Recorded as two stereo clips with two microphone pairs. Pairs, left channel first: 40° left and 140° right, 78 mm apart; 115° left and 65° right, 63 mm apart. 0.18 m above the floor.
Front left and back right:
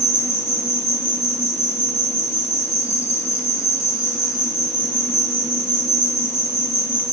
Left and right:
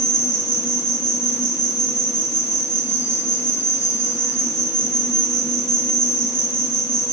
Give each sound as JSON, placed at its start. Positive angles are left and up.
{"t": 0.0, "sound": "an insect", "azimuth_deg": -20, "distance_m": 3.0}